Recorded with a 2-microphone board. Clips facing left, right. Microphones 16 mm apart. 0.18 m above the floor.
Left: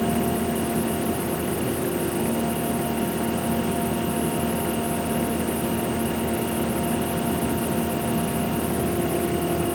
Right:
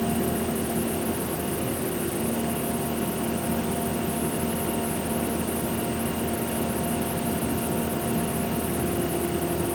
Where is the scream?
No scream in this recording.